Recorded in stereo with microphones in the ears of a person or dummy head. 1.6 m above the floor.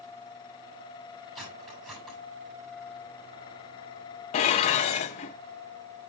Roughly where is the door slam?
No door slam in this recording.